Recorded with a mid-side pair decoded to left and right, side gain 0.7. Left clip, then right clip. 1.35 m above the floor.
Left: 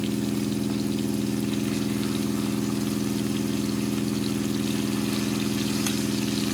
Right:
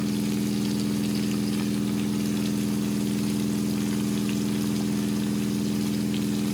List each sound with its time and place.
0.0 s a machine running: 65° left, 4.5 m